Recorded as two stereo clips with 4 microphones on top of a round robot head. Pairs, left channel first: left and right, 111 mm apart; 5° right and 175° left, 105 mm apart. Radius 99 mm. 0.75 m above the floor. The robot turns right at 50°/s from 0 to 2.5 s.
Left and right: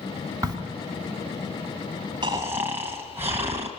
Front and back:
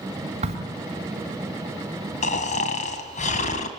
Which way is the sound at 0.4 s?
150° right.